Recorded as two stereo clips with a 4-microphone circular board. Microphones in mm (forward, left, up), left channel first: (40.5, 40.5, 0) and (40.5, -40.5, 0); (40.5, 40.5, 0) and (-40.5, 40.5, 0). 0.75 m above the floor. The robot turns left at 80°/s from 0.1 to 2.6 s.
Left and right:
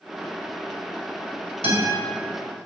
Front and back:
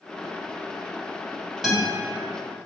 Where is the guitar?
95° left, 3 m; by 1.9 s 70° left, 3 m.